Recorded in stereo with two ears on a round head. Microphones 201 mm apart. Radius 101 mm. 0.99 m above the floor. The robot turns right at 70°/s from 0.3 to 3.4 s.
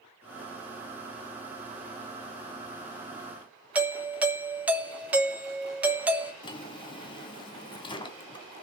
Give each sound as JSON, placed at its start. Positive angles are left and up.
{"t": 3.8, "sound": "a doorbell", "side_deg": -5, "distance_m": 0.9}
{"t": 6.4, "sound": "a drawer", "side_deg": 25, "distance_m": 1.7}